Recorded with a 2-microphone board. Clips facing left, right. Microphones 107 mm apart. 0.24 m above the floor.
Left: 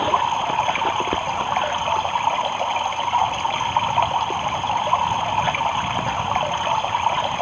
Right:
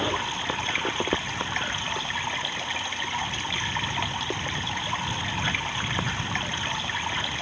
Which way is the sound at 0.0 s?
50° left (ahead or behind).